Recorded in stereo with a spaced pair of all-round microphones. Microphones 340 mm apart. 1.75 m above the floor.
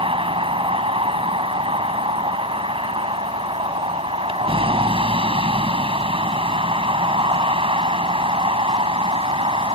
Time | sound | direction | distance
0.0 | a vehicle | 15° right (ahead or behind) | ?